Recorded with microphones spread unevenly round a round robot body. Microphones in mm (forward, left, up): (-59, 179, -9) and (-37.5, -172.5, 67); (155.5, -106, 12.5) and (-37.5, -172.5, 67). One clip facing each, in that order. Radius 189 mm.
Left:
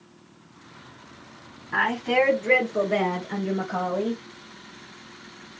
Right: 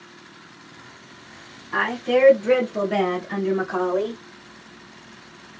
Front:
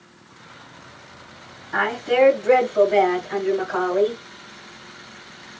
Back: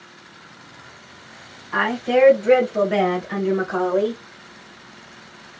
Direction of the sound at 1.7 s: 155° left.